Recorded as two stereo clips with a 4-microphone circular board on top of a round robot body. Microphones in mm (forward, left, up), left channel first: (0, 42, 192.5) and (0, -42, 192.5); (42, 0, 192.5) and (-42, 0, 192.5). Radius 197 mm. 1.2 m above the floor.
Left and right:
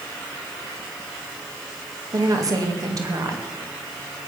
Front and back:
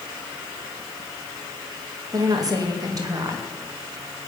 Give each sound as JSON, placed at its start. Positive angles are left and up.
{"t": 2.1, "sound": "a woman speaking", "azimuth_deg": -135, "distance_m": 2.5}